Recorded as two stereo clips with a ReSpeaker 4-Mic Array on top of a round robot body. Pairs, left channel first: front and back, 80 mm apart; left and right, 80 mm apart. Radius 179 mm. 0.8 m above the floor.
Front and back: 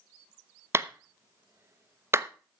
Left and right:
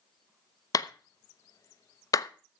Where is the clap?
125° left, 1.0 m.